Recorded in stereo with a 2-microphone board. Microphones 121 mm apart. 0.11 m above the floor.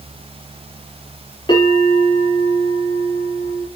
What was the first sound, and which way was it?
A bell, 40° left (ahead or behind).